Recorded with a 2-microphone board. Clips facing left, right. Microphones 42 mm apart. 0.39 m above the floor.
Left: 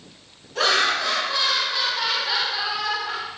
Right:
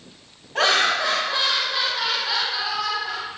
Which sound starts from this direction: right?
Laughter, at 0.6 s.